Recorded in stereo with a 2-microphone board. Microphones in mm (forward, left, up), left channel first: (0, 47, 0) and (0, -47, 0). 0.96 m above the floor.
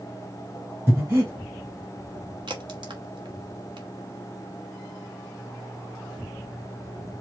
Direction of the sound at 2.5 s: 60° right (ahead or behind).